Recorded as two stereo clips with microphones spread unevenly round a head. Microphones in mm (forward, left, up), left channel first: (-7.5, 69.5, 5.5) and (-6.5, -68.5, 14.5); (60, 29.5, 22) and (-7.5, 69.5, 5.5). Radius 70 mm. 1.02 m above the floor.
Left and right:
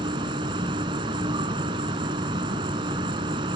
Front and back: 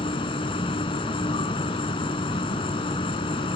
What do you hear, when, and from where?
0.0 s an insect: 30° right